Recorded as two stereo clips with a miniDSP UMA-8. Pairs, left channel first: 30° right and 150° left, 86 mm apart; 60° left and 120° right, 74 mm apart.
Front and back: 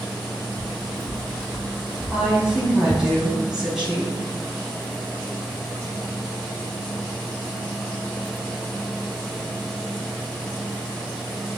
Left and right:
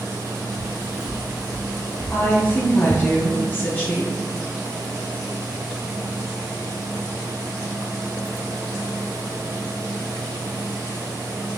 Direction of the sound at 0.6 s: 80° right.